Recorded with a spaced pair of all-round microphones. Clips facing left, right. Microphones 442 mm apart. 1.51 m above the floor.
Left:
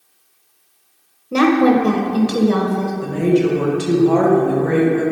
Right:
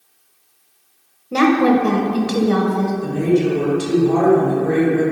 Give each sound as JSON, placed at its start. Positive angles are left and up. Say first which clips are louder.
{"t": 1.3, "sound": "a woman speaking", "louder": "left 1 dB", "side_deg": 0, "distance_m": 0.9}
{"t": 3.0, "sound": "a woman speaking", "louder": "left 2 dB", "side_deg": 85, "distance_m": 1.3}